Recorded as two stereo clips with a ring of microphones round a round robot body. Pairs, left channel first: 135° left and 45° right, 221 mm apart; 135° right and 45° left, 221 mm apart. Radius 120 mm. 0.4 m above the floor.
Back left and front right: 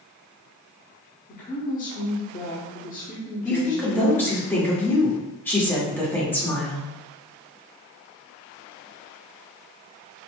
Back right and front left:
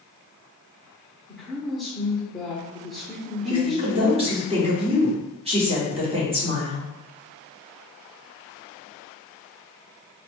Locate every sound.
1.3 s a woman speaking: 135° left, 0.9 m
3.5 s a woman speaking: 65° left, 1.2 m